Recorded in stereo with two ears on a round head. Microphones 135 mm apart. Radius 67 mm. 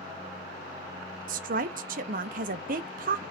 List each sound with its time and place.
1.3 s a woman speaking: 60° right (ahead or behind), 0.5 m